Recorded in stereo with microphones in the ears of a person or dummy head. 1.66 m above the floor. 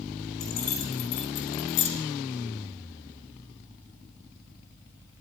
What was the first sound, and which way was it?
Keys jangling, 25° left (ahead or behind).